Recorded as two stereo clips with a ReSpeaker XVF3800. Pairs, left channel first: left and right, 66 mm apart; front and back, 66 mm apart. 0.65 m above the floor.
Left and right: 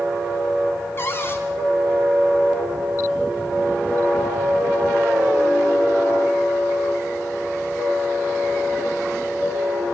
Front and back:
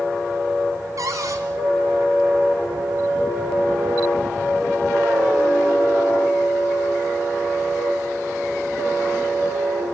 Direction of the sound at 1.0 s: 145° left.